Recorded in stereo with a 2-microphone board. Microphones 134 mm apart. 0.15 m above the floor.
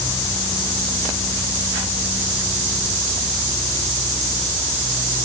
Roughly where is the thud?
I don't hear a thud.